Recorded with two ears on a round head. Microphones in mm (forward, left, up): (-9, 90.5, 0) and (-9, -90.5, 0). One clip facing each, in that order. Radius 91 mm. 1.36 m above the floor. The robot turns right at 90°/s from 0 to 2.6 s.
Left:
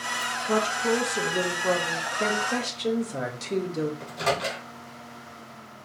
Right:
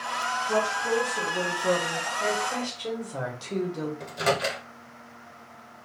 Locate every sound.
0.5 s a woman speaking: 75° left, 0.6 m; by 2.1 s 140° right, 0.6 m
2.2 s a woman speaking: 115° left, 0.6 m; by 3.9 s 150° left, 0.6 m
4.0 s a microwave: 15° right (ahead or behind), 1.1 m